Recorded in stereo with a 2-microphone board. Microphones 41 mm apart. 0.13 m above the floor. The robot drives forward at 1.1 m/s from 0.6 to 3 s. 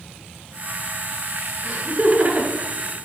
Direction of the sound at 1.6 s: 20° right (ahead or behind).